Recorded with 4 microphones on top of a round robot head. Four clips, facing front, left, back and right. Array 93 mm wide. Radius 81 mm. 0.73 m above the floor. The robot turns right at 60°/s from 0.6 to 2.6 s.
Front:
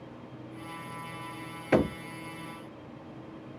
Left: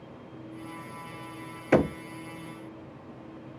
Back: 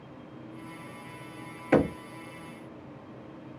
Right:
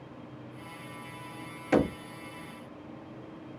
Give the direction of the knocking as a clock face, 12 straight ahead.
9 o'clock.